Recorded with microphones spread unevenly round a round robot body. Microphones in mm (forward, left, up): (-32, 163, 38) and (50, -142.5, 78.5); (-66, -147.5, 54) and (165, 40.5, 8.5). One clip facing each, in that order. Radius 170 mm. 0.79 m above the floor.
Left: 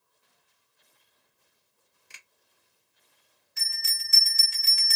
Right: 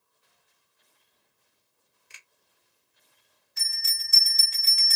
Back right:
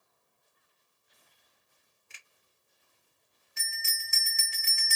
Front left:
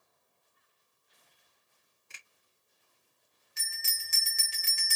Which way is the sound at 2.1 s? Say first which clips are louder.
Left 1 dB, front left 1 dB; 75° left.